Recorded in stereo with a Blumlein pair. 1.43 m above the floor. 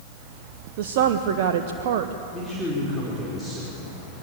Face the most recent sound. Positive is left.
turn(degrees=5)